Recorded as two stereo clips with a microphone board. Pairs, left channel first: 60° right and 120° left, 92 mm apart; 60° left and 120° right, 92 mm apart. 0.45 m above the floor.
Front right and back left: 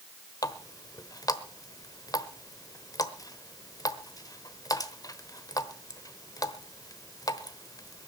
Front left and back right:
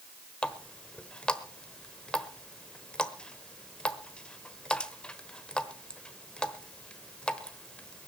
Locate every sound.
0.4 s a running tap: 20° right, 1.0 m